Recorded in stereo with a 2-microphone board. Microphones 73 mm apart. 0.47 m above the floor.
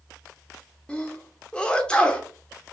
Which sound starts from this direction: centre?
A sneeze, at 0.9 s.